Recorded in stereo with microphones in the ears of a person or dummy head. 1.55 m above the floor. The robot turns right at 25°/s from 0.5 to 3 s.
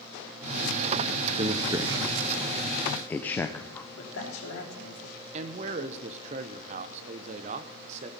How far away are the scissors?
I don't hear scissors.